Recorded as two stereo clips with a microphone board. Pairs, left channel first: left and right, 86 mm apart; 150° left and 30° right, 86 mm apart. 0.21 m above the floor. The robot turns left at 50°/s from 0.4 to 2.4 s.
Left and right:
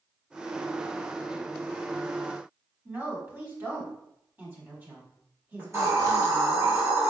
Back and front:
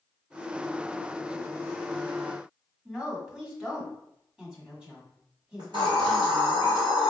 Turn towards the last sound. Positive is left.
turn(degrees=-40)